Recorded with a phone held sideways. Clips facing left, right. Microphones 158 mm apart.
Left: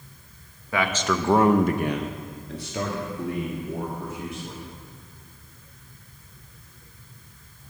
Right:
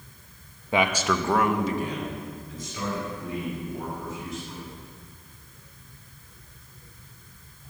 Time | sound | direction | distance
0.7 | a man speaking | 25° right (ahead or behind) | 0.9 m